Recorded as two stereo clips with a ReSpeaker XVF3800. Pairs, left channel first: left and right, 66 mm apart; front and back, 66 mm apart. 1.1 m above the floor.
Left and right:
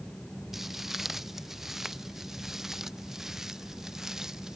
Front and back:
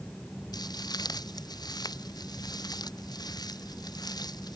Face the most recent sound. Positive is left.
turn(degrees=-5)